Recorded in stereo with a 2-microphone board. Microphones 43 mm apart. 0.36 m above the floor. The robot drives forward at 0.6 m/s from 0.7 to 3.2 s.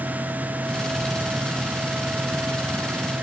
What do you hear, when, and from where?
Only background noise.